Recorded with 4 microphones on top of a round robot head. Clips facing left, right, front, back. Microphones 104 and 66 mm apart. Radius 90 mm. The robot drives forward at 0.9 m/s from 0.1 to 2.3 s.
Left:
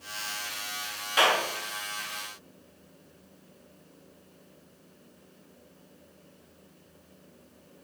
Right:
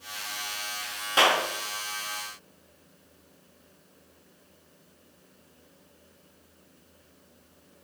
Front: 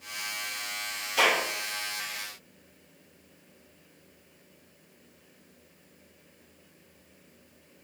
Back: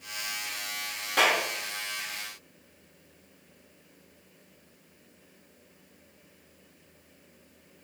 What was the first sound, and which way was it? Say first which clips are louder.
A clap: right 1 dB, even; 145° right.